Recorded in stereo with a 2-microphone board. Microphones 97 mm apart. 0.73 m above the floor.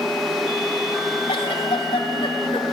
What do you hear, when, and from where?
1.3 s a giggle: 70° left (ahead or behind), 1.8 m